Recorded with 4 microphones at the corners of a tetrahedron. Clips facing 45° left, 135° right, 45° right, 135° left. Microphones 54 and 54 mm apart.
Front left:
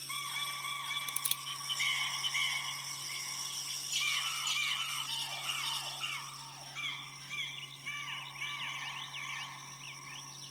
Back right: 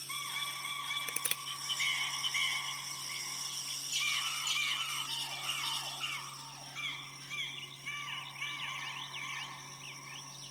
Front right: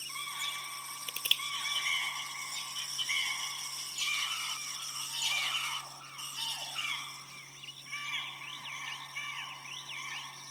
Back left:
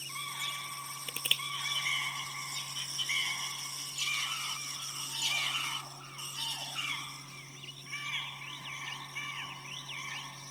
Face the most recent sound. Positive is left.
turn(degrees=-155)